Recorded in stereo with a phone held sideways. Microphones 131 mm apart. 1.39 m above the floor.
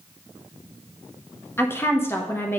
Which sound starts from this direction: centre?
A woman speaking, at 1.6 s.